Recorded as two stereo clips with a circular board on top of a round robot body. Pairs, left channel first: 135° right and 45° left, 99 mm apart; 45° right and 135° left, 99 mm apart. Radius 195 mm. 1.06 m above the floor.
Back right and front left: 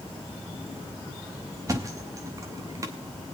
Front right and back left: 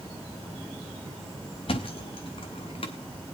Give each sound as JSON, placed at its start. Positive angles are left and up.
{"t": 1.7, "sound": "a thud", "azimuth_deg": -15, "distance_m": 0.9}